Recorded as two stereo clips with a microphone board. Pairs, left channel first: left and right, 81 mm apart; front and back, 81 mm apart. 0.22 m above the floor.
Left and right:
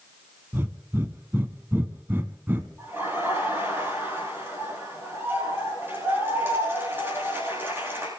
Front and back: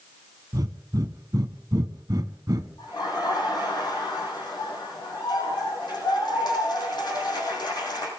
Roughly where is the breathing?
Behind right.